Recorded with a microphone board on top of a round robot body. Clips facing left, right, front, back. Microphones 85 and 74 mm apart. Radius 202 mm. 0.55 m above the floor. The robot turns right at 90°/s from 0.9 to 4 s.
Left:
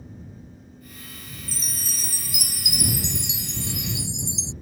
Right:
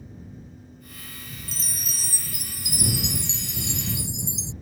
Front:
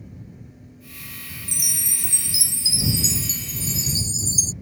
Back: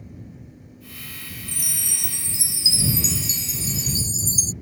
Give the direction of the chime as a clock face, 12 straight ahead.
12 o'clock.